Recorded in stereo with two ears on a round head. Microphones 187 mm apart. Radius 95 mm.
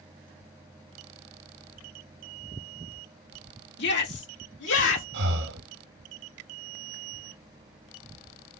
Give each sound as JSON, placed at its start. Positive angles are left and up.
{"t": 3.8, "sound": "a shout", "side_deg": 55, "distance_m": 1.7}
{"t": 5.1, "sound": "breathing", "side_deg": -55, "distance_m": 1.0}